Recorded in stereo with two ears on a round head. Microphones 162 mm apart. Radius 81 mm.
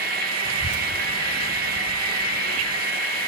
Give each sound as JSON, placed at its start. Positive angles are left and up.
{"t": 0.5, "sound": "a child speaking", "side_deg": -75}